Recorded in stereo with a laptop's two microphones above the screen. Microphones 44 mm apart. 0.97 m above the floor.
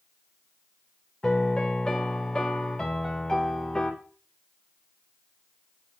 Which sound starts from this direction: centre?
A piano, at 1.2 s.